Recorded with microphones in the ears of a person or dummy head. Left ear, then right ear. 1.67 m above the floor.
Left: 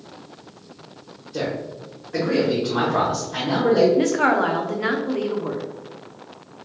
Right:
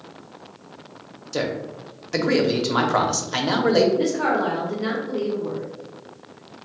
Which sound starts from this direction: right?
A man speaking, at 1.3 s.